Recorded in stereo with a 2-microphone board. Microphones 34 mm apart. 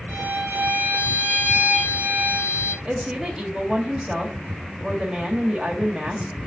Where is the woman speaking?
15° right (ahead or behind), 1.6 m.